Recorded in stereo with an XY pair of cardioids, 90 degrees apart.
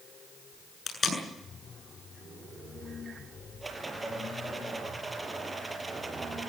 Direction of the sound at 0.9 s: 40° left.